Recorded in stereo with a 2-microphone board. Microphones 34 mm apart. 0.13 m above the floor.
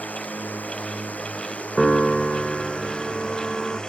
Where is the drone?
60° left (ahead or behind); by 3.9 s 25° left (ahead or behind).